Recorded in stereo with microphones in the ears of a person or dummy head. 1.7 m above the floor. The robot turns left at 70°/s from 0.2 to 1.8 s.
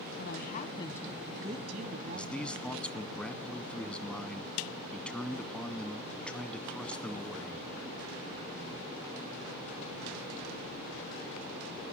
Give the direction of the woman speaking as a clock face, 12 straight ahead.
10 o'clock.